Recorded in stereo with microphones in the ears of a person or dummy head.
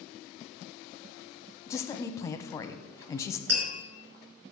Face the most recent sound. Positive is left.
turn(degrees=-60)  # may be behind; listen again after turning